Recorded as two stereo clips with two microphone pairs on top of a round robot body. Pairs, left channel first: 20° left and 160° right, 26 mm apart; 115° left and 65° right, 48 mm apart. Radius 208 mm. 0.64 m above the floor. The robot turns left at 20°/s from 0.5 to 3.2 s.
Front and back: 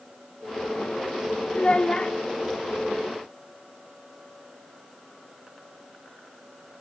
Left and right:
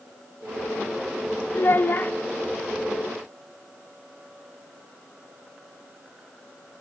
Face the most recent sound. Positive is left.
turn(degrees=40)